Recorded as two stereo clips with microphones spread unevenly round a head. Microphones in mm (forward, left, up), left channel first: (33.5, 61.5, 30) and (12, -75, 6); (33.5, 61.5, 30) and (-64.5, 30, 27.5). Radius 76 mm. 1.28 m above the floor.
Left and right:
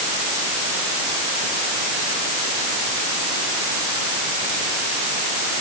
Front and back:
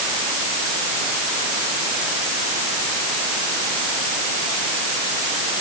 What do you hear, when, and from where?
Only background noise.